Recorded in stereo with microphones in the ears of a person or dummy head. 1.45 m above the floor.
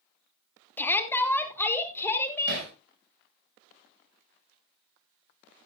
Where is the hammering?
65° right (ahead or behind), 7 m.